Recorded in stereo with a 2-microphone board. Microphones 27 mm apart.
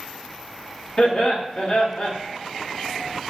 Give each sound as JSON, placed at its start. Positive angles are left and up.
{"t": 1.0, "sound": "laughter", "side_deg": 45, "distance_m": 1.3}